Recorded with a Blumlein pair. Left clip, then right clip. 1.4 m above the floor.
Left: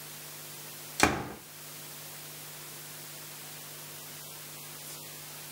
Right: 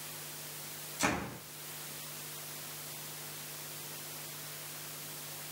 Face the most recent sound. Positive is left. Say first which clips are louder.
# left 6 dB
turn(degrees=55)